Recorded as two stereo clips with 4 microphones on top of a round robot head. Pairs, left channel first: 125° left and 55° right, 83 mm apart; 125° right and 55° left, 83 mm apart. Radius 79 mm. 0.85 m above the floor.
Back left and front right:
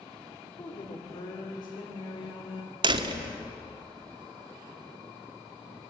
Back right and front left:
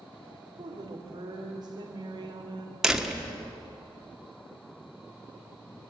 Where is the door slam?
30° right, 1.4 m.